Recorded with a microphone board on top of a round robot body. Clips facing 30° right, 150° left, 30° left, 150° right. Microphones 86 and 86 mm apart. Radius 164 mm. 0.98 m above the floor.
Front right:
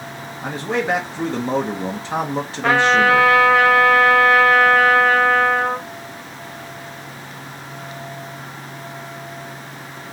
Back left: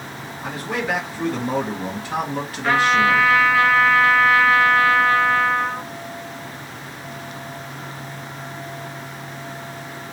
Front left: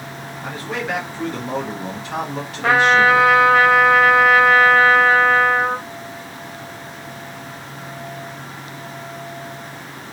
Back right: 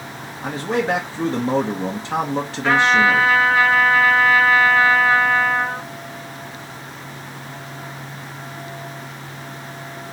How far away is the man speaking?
About 1.1 m.